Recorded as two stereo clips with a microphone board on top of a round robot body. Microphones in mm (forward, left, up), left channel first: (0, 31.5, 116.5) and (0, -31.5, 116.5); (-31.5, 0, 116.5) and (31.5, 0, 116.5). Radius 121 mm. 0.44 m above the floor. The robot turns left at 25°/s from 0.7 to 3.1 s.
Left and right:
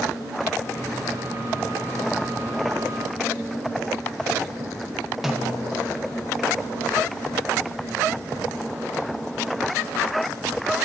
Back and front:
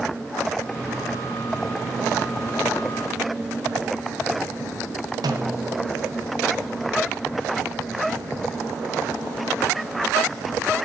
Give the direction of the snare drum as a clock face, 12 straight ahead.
12 o'clock.